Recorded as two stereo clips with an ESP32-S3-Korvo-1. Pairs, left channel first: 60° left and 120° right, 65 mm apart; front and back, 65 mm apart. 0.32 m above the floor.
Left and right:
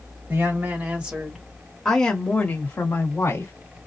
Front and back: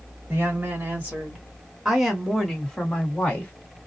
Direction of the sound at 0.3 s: 145° right.